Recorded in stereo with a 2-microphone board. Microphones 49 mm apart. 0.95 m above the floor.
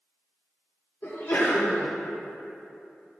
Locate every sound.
1.0 s a sneeze: 60° left (ahead or behind), 2 m